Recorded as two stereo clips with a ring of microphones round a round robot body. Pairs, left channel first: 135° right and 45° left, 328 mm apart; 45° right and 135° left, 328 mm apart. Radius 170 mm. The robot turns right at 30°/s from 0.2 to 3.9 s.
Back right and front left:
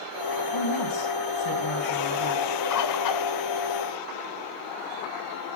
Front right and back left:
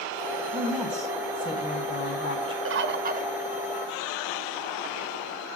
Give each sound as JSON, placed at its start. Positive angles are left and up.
{"t": 0.5, "sound": "a woman speaking", "azimuth_deg": -150, "distance_m": 4.0}
{"t": 2.6, "sound": "a bird", "azimuth_deg": -175, "distance_m": 1.1}